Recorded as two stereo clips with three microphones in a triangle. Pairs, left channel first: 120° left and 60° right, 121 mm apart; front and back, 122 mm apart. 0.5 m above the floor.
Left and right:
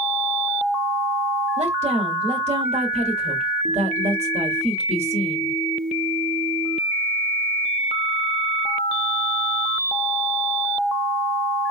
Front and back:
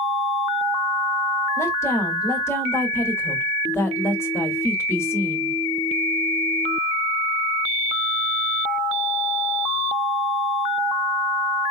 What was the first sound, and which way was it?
A woman speaking, 65° right.